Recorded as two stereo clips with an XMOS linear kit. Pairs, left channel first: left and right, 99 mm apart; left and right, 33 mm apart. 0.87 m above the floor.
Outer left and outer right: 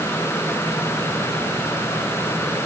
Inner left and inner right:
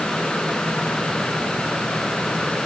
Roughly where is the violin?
I don't hear a violin.